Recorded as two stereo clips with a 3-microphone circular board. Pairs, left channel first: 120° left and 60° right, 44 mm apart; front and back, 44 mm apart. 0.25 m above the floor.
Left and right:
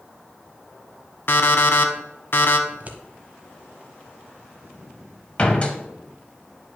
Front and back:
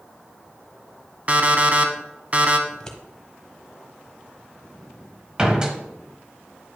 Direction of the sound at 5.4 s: 135° left.